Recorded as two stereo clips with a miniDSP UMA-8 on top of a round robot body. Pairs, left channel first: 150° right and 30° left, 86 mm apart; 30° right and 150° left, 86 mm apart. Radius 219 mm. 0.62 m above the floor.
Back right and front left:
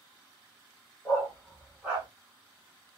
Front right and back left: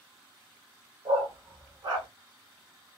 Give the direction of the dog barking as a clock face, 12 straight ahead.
7 o'clock.